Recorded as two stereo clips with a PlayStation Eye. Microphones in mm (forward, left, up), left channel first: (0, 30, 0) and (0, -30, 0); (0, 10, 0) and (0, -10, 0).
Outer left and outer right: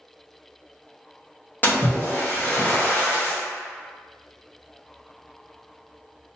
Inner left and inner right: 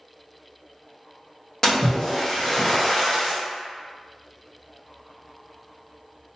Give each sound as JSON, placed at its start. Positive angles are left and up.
{"t": 1.6, "sound": "a splash", "side_deg": 30, "distance_m": 0.7}